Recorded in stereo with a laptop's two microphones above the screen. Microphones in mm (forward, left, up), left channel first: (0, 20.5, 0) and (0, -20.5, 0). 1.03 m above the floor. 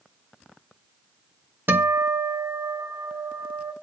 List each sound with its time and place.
1.7 s a guitar: 75° right (ahead or behind), 1.2 m